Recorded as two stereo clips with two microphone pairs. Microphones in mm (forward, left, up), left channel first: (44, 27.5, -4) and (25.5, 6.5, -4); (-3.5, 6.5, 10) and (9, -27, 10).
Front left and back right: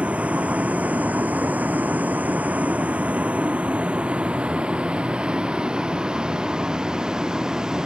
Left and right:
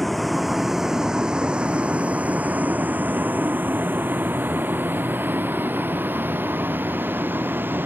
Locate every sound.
0.0 s a vehicle: 165° right; by 7.9 s 65° right